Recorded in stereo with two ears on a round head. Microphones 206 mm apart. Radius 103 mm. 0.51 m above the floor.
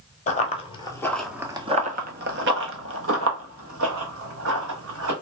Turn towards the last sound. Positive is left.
turn(degrees=-70)  # may be behind; listen again after turning